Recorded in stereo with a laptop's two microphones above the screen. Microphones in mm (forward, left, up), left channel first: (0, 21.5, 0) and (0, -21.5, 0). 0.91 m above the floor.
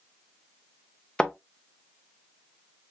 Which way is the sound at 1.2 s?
20° left (ahead or behind).